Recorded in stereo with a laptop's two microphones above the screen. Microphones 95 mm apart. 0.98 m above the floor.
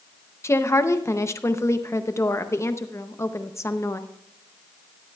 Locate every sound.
0.4 s a woman speaking: 30° left (ahead or behind), 0.6 m